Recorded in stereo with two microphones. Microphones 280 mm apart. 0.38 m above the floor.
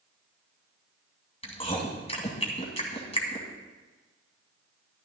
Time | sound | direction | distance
1.4 | chewing | 20° left (ahead or behind) | 2.0 m